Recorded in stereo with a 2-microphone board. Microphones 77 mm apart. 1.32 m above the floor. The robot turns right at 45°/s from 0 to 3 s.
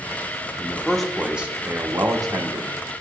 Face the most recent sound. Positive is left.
turn(degrees=-90)